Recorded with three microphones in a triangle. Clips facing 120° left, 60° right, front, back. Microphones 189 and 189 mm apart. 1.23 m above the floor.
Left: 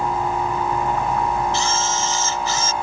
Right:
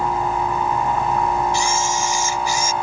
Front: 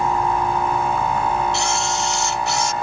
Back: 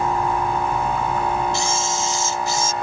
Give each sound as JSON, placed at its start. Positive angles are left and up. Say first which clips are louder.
{"t": 1.5, "sound": "a camera shutter", "louder": "right 1 dB, front 1 dB", "azimuth_deg": 15}